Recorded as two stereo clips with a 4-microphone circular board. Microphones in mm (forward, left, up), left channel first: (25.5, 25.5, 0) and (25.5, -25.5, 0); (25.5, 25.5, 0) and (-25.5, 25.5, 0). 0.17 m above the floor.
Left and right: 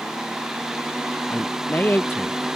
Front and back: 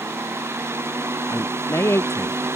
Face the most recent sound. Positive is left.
turn(degrees=35)